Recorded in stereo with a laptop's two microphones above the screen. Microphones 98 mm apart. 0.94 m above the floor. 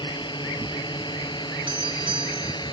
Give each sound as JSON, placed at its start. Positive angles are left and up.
{"t": 0.0, "sound": "a drone", "side_deg": 50}
{"t": 1.7, "sound": "a doorbell", "side_deg": -60}